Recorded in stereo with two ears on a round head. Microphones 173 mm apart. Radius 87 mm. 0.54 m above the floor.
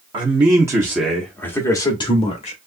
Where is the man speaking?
30° right (ahead or behind), 1.1 m; by 2.6 s 40° left (ahead or behind), 1.2 m.